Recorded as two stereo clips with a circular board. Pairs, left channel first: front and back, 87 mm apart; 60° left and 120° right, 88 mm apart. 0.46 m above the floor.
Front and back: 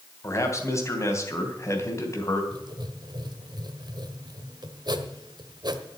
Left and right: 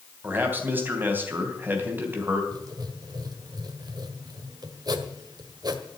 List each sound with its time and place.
0.2 s a man speaking: 55° right, 3 m
2.5 s writing: 150° right, 1.4 m